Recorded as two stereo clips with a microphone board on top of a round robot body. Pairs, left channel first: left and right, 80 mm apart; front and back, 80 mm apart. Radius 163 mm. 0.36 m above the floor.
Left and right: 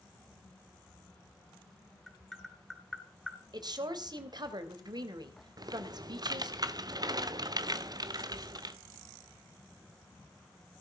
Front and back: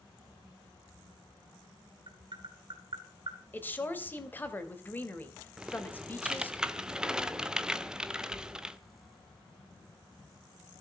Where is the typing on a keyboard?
100° right, 1.6 m.